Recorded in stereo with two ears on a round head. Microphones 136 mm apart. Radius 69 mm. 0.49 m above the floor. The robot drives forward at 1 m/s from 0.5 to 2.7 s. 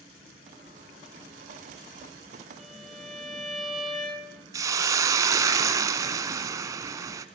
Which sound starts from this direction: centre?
A violin, at 2.6 s.